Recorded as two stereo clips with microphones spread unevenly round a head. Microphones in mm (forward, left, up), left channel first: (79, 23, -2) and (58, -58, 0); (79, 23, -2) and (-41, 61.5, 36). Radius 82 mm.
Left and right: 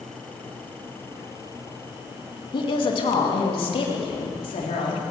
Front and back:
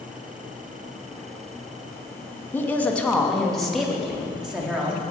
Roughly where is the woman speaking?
Ahead left.